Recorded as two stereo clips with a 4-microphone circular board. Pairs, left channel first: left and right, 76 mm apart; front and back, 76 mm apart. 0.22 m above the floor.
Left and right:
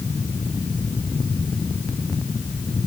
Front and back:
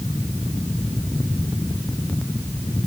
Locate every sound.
Only background noise.